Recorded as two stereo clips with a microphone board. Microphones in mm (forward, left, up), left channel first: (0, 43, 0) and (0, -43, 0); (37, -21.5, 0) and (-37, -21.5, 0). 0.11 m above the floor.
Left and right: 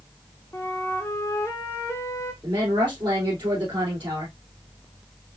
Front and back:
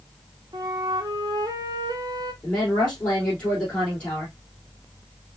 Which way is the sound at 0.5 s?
145° left.